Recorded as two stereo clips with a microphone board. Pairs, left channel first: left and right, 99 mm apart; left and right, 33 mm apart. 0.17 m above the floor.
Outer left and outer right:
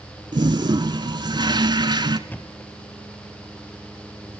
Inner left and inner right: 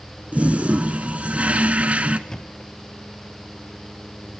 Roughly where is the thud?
Centre.